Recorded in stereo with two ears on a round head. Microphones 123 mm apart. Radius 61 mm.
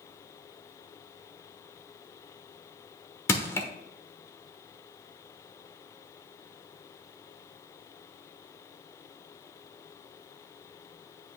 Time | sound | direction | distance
3.3 | crushing | 20° left (ahead or behind) | 1.1 m